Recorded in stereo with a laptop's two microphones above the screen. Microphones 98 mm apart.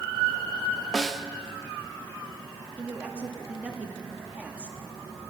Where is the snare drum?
Centre (ahead or behind), 0.5 m.